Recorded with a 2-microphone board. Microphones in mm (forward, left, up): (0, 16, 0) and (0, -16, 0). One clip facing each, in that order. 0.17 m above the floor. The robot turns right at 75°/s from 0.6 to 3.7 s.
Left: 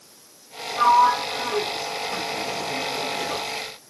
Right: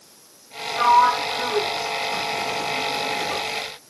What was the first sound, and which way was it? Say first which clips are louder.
A sliding door: right 1 dB; 20° right (ahead or behind).